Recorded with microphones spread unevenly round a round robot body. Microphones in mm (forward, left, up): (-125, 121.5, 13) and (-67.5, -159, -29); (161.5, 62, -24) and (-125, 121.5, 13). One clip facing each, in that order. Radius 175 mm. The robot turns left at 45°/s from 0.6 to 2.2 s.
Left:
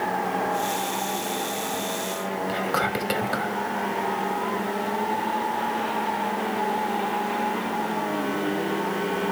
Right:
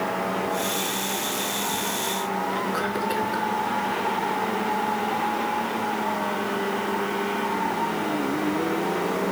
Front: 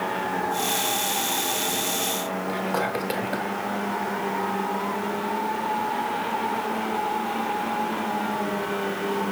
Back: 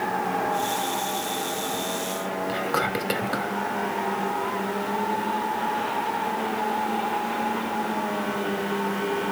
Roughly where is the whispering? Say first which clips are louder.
Left 1 dB, front 1 dB; left.